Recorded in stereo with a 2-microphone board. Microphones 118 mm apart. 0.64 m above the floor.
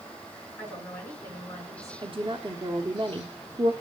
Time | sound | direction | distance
0.6 | a woman speaking | 20° left (ahead or behind) | 7.5 m
2.0 | a woman speaking | 45° right (ahead or behind) | 1.3 m